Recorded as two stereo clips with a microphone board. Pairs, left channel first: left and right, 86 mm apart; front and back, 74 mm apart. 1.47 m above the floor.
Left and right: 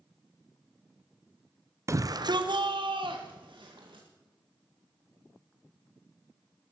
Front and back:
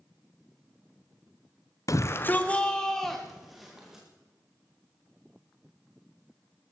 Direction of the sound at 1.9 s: 35° right.